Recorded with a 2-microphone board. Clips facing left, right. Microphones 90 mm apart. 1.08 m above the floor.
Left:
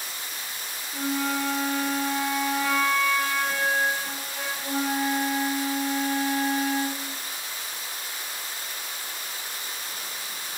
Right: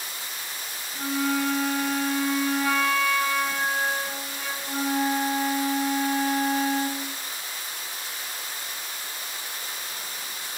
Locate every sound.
0.9 s a flute: 55° left (ahead or behind), 3.5 m